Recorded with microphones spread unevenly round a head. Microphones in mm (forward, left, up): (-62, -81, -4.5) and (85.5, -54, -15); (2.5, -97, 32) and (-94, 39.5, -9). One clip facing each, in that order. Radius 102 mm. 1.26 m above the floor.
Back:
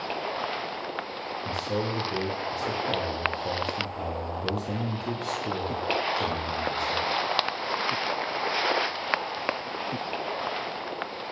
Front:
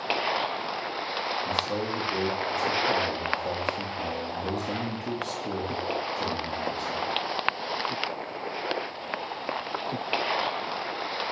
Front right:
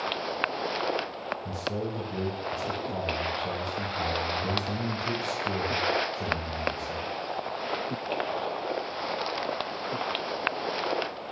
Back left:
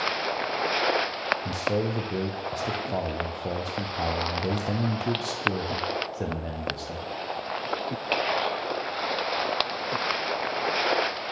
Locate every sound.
1.4 s a man speaking: 105° left, 0.5 m